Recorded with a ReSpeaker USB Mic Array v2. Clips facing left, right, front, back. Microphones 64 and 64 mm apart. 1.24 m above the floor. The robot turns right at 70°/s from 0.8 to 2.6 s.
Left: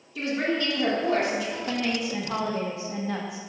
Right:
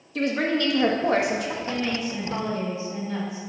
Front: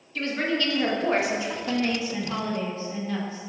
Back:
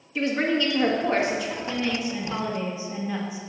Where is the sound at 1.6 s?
35° left, 1.5 m; by 3.4 s 105° left, 1.5 m.